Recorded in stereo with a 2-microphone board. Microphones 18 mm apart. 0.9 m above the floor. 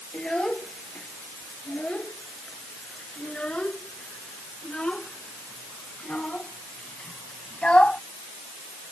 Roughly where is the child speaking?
Left.